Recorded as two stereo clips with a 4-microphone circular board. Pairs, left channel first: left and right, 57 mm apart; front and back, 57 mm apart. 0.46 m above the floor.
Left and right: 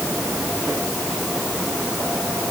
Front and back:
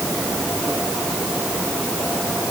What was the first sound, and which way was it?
Only background noise.